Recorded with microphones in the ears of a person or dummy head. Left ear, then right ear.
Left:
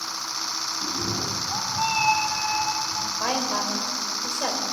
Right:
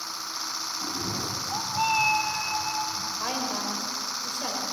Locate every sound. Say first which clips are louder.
0.8 s a cat meowing: left 3 dB; 10° right (ahead or behind), 1.0 m; by 3.1 s 25° right (ahead or behind), 3 m
3.2 s a woman speaking: left 5 dB; 20° left (ahead or behind), 4 m